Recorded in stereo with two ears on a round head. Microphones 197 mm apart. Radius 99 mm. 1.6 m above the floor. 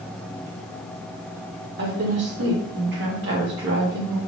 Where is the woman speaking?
50° right (ahead or behind), 1.7 m.